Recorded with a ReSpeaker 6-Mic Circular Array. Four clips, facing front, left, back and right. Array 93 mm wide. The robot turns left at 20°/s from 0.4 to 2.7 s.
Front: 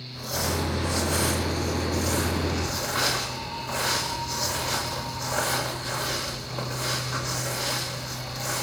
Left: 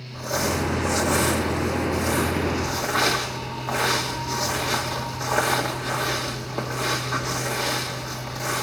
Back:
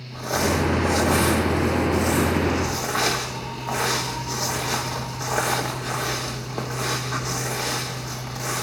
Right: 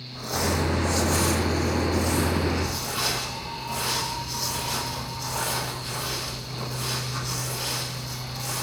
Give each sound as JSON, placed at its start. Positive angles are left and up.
{"t": 0.1, "sound": "crumpling", "azimuth_deg": 180, "distance_m": 3.0}